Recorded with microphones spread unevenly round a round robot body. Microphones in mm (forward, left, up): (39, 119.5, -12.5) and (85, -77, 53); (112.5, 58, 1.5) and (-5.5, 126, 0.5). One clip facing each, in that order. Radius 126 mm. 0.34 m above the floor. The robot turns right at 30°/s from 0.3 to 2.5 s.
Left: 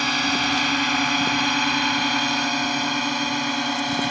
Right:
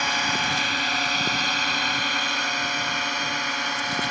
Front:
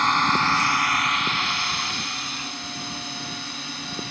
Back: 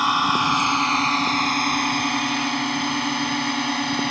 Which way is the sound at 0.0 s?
70° left.